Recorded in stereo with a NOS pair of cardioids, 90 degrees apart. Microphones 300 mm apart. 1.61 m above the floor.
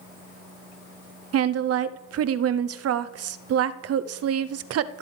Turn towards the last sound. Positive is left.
turn(degrees=-55)